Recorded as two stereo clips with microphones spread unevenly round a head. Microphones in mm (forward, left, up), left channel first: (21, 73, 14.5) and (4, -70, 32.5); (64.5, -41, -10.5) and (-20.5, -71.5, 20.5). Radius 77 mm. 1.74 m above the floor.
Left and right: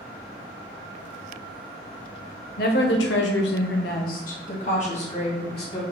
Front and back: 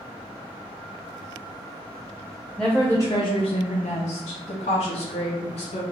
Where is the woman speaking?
115° left, 0.8 m; by 5.8 s 30° left, 1.6 m.